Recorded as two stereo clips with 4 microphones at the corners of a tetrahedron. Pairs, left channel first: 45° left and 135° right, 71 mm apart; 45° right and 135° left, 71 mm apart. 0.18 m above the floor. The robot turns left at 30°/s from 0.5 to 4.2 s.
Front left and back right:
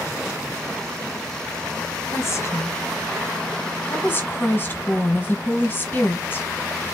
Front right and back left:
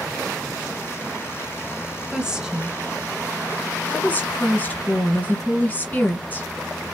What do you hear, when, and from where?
2.1 s a woman speaking: 65° left, 1.7 m; by 6.5 s straight ahead, 1.7 m